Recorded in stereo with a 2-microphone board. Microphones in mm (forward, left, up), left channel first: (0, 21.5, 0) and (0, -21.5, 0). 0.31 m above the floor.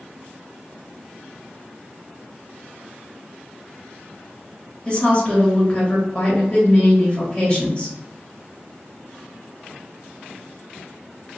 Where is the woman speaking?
25° left (ahead or behind), 1.6 m.